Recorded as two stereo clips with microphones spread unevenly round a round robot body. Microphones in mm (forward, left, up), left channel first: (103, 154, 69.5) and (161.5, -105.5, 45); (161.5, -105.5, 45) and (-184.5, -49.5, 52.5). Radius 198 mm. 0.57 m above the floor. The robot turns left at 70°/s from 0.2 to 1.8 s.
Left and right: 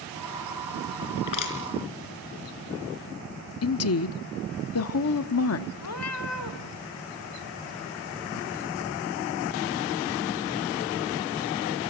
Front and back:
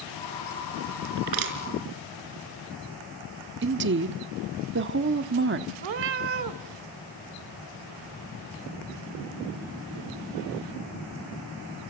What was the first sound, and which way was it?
Crushing, 145° left.